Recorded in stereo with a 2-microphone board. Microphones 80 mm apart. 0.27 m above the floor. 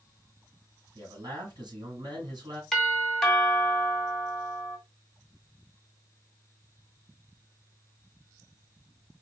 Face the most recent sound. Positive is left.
turn(degrees=5)  # may be behind; listen again after turning